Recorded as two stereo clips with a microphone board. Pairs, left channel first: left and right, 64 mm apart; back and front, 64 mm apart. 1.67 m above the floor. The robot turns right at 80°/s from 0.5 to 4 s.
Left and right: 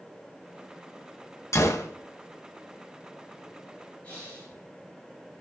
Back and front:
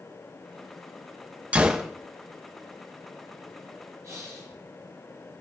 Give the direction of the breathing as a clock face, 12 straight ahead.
11 o'clock.